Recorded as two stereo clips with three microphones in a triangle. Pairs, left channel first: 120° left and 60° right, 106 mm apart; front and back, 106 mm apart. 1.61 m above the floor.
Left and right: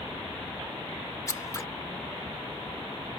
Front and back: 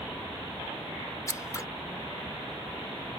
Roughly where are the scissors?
Ahead left.